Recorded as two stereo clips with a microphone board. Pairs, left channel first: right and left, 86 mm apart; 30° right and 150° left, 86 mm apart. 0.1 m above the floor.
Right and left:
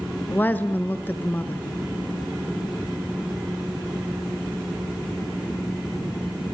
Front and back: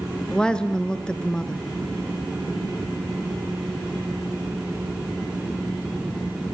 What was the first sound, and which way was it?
A woman speaking, 90° right.